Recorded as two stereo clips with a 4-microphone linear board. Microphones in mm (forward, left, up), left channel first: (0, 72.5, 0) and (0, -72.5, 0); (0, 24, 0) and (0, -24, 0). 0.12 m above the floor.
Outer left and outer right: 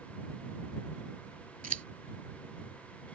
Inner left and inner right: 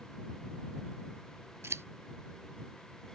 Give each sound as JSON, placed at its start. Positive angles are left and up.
{"t": 1.6, "sound": "scissors", "side_deg": -65}